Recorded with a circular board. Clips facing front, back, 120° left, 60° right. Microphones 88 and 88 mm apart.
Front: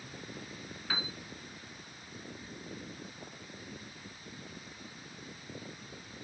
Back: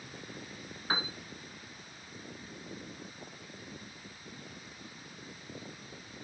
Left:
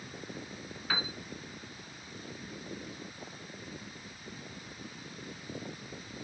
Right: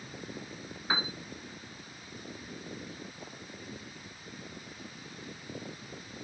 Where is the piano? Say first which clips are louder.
Back 4 dB, right 3 dB; 125° right, 1.0 m.